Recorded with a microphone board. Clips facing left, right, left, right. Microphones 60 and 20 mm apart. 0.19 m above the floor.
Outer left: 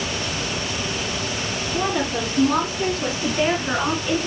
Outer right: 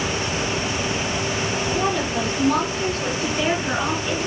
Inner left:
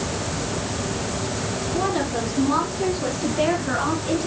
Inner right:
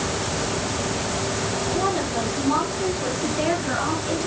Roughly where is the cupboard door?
No cupboard door in this recording.